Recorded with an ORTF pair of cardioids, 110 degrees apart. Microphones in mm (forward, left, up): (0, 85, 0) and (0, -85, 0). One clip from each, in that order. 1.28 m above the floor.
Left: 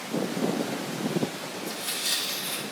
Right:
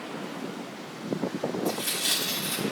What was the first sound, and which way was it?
Tearing paper, 65° right.